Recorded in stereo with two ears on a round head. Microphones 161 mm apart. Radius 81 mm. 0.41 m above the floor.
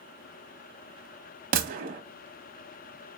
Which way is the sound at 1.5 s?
50° right (ahead or behind).